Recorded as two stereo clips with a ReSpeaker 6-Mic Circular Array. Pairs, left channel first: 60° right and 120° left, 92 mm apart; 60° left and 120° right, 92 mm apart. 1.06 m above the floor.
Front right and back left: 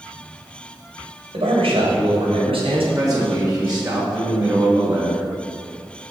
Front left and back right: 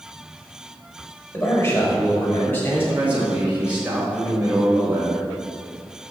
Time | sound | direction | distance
1.3 | a man speaking | 125° left | 4 m
3.0 | a man speaking | 170° left | 4 m